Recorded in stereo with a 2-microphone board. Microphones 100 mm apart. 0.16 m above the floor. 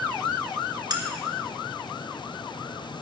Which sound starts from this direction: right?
Cutlery clinking, at 0.9 s.